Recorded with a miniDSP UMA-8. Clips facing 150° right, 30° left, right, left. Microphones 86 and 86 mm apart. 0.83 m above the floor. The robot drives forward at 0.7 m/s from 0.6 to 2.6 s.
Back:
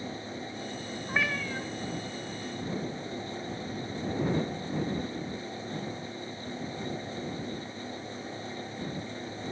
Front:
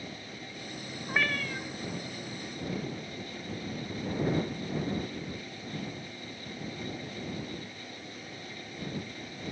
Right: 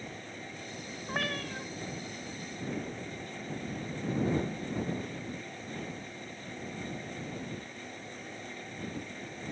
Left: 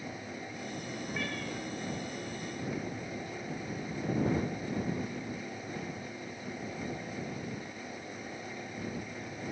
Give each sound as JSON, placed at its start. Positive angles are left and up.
{"t": 1.1, "sound": "a cat meowing", "azimuth_deg": -65, "distance_m": 1.5}